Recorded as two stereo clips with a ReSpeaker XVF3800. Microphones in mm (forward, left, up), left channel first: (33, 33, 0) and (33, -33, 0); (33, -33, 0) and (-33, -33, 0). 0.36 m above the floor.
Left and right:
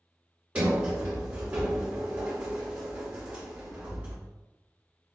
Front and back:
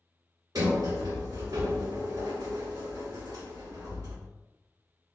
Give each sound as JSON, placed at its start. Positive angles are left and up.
{"t": 0.6, "sound": "a sliding door", "azimuth_deg": -155, "distance_m": 1.7}